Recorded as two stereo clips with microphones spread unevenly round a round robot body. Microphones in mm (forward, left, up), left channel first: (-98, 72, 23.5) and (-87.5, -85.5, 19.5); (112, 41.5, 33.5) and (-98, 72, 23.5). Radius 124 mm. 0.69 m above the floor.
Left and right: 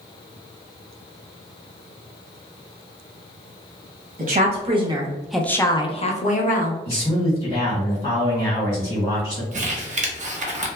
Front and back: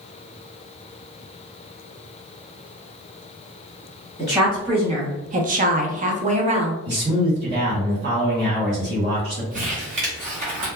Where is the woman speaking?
115° right, 0.9 m; by 6.8 s 115° left, 1.0 m.